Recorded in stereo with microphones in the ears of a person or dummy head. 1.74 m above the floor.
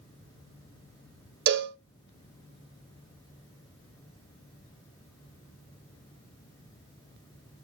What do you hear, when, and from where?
1.5 s a cowbell: 65° right (ahead or behind), 0.5 m